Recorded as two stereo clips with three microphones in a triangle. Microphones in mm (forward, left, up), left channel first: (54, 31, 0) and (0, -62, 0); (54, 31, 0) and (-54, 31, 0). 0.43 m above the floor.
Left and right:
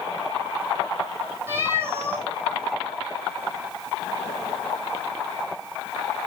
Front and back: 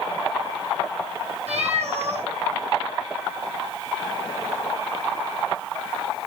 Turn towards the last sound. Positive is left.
turn(degrees=175)